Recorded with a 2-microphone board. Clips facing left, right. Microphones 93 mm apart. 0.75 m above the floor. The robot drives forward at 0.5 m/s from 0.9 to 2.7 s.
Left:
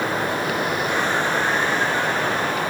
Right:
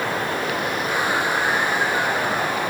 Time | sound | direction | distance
0.0 | running water | 30° left (ahead or behind) | 9 m